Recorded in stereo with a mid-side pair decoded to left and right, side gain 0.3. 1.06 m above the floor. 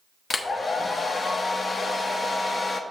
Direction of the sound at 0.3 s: 50° left.